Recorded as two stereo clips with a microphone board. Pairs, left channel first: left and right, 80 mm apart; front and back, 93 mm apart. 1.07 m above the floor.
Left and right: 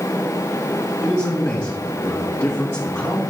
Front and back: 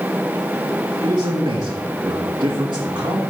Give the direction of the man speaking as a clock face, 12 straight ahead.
7 o'clock.